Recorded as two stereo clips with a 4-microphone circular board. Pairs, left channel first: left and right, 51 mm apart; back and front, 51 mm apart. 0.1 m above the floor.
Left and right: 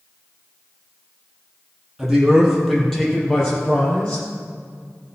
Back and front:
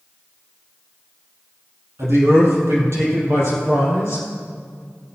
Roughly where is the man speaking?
Ahead.